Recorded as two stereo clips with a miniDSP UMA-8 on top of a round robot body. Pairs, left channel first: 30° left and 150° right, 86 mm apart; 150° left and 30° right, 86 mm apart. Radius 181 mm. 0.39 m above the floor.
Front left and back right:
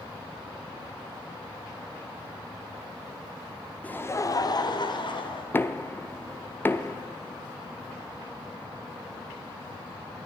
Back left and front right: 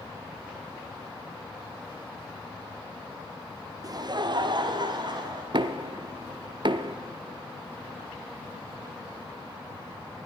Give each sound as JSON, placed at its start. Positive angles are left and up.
{"t": 3.8, "sound": "laughter", "azimuth_deg": -40, "distance_m": 1.0}
{"t": 5.5, "sound": "knocking", "azimuth_deg": -35, "distance_m": 0.9}